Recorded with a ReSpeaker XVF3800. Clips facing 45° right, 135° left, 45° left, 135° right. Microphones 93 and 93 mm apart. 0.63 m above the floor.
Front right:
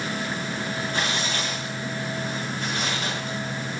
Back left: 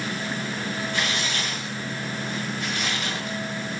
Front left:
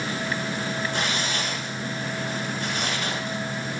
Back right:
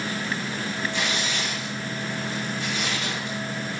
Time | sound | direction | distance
0.9 | tearing paper | 10° left | 7 m